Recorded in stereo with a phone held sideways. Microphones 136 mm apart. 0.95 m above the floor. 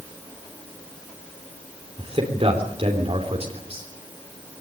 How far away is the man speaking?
About 3.5 m.